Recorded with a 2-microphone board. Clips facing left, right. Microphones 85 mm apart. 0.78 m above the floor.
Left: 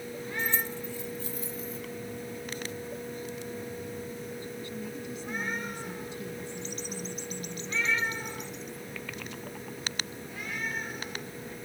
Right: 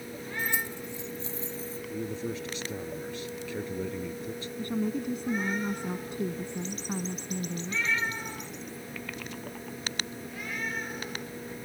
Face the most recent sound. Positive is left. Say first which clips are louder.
# right 7 dB
turn(degrees=-50)  # may be behind; listen again after turning